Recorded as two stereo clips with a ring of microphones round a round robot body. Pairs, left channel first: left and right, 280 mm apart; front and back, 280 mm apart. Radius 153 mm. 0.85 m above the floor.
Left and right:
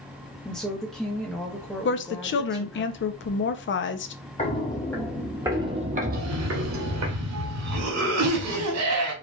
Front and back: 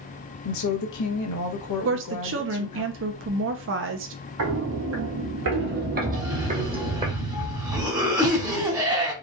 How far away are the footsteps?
About 1.3 m.